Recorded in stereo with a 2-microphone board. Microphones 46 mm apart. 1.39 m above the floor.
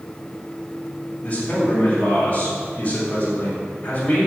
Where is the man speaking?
25° left (ahead or behind), 6.5 m.